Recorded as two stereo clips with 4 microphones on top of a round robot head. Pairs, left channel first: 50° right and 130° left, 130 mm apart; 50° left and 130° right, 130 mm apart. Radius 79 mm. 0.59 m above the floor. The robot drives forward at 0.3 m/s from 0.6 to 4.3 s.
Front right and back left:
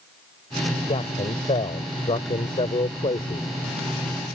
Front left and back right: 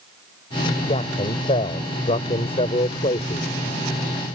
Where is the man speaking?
5° left.